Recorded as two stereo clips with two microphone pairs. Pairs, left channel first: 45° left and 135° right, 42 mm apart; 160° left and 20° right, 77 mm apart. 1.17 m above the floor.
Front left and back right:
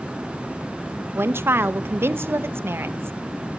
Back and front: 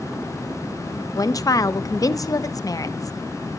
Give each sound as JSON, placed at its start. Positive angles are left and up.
{"t": 1.1, "sound": "a woman speaking", "azimuth_deg": -160, "distance_m": 0.8}